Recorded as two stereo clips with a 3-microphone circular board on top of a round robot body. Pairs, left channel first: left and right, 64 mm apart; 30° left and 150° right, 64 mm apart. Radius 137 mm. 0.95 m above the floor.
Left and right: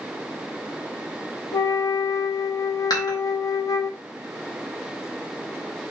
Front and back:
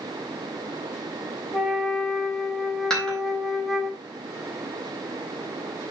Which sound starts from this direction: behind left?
A flute, at 1.5 s.